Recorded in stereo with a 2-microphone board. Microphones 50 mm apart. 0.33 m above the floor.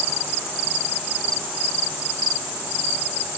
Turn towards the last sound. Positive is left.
No sound to turn to.